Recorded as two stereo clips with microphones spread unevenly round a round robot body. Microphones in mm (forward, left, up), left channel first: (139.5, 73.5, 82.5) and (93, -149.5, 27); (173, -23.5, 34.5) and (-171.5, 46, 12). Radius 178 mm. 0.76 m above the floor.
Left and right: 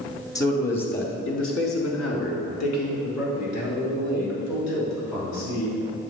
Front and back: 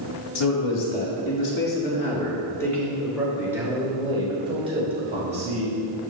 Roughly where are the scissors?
I don't hear scissors.